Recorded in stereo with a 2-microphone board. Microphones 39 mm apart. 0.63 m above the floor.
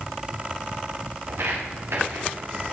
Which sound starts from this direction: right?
Footsteps, at 1.3 s.